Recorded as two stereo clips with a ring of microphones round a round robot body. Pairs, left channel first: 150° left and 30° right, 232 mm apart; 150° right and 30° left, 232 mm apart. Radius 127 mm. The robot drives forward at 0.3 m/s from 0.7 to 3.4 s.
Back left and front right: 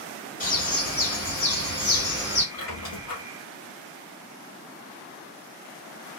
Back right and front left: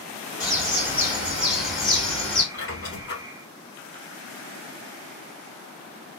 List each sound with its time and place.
0.4 s a bird: 110° left, 1.6 m; by 2.4 s 130° left, 1.8 m
2.5 s a squeak: 160° left, 1.4 m; by 3.2 s 165° left, 1.6 m